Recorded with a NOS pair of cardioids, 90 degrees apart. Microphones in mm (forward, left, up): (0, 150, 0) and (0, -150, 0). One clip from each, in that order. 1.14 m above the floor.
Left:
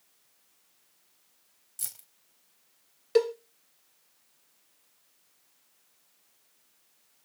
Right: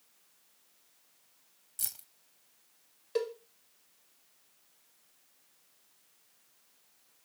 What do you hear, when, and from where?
1.8 s keys jangling: 5° right, 0.7 m
3.1 s a cowbell: 50° left, 0.9 m